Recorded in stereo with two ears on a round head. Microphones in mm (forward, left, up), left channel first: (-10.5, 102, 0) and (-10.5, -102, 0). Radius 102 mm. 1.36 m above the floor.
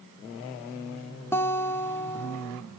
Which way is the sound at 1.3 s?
10° left (ahead or behind).